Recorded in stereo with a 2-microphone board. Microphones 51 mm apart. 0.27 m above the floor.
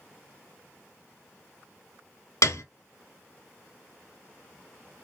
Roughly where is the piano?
Left.